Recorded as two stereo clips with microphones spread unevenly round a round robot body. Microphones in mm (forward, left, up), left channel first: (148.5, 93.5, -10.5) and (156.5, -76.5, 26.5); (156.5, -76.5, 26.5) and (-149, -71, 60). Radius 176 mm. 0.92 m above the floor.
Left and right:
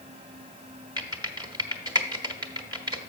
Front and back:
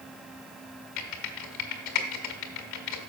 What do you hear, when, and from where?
1.0 s typing on a keyboard: 25° right, 1.6 m